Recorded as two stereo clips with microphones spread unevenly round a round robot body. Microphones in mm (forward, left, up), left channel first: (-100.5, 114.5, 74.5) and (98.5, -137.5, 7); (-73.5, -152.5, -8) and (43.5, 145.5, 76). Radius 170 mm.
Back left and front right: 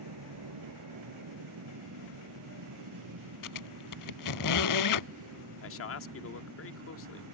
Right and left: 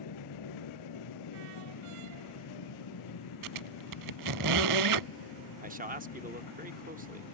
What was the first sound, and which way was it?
An aircraft, 85° right.